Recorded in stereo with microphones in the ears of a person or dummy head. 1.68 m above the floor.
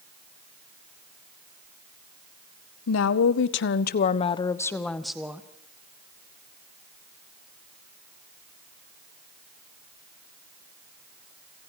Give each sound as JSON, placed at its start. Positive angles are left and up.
{"t": 2.9, "sound": "a woman speaking", "side_deg": 90, "distance_m": 1.6}